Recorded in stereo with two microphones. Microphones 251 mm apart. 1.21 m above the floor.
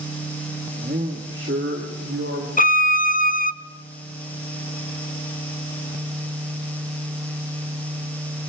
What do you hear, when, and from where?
0.8 s a man speaking: 35° right (ahead or behind), 1.6 m; by 2.5 s 65° right (ahead or behind), 3.5 m
2.6 s a violin: 35° left (ahead or behind), 0.7 m